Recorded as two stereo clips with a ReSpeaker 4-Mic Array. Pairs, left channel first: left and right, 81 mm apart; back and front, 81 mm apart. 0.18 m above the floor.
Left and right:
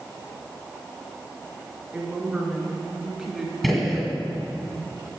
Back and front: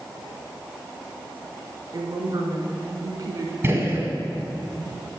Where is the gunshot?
Straight ahead, 1.7 m.